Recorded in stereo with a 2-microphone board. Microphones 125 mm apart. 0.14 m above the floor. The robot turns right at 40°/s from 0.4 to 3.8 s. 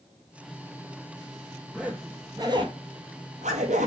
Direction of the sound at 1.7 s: 5° right (ahead or behind).